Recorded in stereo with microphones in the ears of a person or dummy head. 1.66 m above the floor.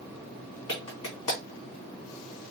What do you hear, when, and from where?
0.7 s a clap: 20° left (ahead or behind), 3 m